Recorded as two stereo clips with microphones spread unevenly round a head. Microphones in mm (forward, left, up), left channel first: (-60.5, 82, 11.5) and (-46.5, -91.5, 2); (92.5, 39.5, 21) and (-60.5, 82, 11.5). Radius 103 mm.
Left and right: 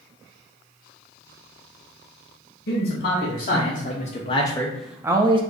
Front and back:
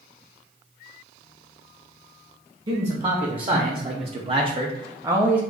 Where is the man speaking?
110° left, 1.2 m; by 5.4 s 120° right, 0.6 m.